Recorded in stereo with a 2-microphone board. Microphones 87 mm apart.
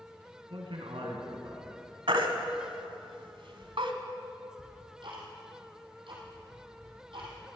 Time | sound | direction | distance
0.5 | a man speaking | 80° right | 3.5 m
2.1 | a baby crying | 85° right | 1.4 m
4.6 | ticking | 70° right (ahead or behind) | 4 m